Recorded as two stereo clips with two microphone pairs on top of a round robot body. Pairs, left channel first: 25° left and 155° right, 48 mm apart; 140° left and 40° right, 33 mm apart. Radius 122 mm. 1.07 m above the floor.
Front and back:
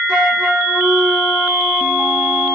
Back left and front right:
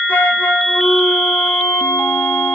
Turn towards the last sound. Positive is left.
turn(degrees=130)